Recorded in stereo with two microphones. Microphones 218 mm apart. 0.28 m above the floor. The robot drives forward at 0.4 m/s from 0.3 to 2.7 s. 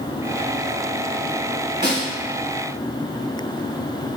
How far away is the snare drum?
About 1.3 m.